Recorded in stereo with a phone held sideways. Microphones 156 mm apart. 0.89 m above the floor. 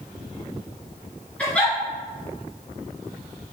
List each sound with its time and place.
1.4 s a giggle: 10° left (ahead or behind), 2.5 m